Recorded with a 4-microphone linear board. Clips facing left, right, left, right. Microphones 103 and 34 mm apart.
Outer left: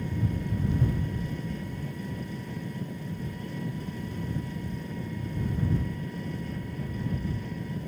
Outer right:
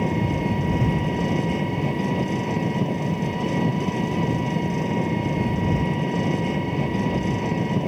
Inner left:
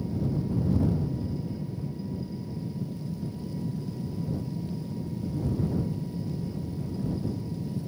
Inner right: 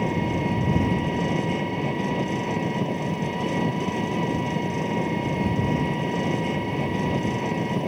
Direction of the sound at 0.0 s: 85° right.